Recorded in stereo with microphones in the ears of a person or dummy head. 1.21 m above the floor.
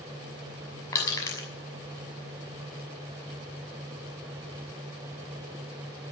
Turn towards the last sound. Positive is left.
turn(degrees=20)  # may be behind; listen again after turning